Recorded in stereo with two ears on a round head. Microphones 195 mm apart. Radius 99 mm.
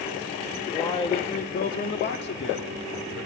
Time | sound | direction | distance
0.7 | a man speaking | 15° left (ahead or behind) | 1.2 m